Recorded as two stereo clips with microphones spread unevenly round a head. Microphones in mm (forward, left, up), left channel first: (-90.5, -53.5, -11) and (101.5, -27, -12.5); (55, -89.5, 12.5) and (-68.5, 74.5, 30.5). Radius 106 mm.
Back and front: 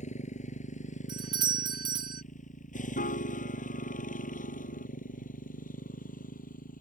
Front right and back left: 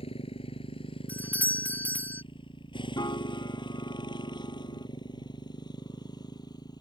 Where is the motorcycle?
120° right; by 6.8 s 125° right.